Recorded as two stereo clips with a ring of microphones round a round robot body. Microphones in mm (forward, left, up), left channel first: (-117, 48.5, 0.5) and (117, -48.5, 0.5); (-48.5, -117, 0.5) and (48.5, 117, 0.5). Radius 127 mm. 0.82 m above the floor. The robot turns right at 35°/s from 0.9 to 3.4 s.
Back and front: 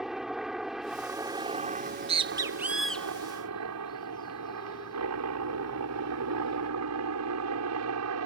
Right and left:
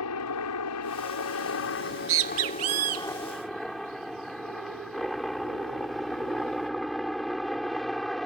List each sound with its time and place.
0.0 s a helicopter: 110° right; by 8.3 s 25° right
1.8 s a bird: 30° left; by 6.7 s 85° left